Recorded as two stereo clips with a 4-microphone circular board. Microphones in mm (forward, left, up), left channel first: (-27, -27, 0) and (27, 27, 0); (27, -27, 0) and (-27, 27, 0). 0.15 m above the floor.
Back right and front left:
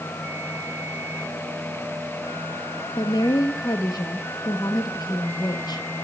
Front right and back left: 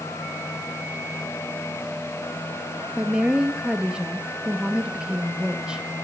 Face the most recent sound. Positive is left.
turn(degrees=-150)